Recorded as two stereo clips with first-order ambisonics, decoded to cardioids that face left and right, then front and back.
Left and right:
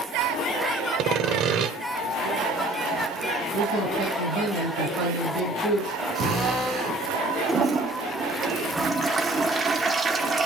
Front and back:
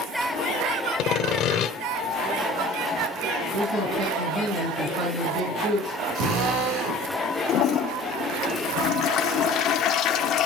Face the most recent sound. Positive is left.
turn(degrees=-20)